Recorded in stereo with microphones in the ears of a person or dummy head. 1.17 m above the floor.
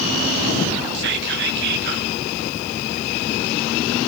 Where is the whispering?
60° right (ahead or behind), 1.2 m.